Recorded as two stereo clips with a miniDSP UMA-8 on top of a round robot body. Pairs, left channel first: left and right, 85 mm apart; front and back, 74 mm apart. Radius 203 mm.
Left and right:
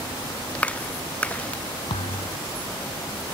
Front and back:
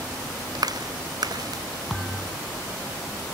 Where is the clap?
165° left.